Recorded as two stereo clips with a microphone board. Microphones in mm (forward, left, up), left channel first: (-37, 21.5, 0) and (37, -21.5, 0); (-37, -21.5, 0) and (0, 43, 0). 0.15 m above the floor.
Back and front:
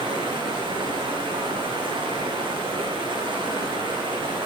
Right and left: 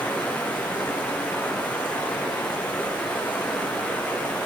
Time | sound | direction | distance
0.0 | running water | 50° right | 8 m